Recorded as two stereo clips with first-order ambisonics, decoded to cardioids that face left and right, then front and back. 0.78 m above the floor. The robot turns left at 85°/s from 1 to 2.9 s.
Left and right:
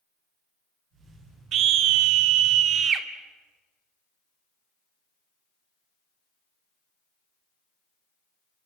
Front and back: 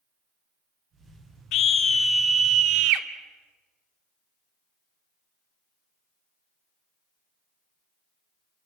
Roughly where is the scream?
Ahead right.